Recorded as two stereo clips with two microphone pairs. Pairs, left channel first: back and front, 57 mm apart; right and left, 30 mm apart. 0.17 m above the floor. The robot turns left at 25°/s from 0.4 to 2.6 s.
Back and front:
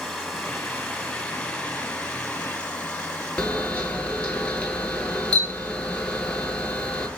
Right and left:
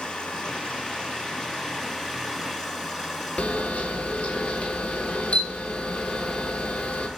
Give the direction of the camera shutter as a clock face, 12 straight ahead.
4 o'clock.